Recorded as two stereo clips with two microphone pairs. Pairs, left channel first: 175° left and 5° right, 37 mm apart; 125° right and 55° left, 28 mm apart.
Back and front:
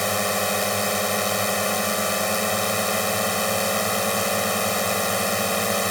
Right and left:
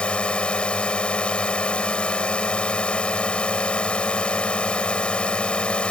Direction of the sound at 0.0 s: 100° right.